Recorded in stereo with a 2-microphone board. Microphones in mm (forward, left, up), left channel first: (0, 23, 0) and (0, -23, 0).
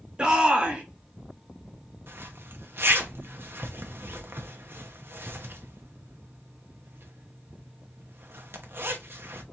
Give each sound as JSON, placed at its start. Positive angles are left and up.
{"t": 0.2, "sound": "a shout", "side_deg": -20, "distance_m": 1.4}
{"t": 2.1, "sound": "a zipper", "side_deg": -55, "distance_m": 0.9}